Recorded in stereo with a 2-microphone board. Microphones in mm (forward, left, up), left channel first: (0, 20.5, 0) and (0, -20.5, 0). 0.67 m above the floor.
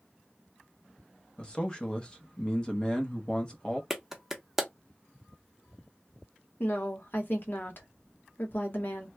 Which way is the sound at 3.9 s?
5° right (ahead or behind).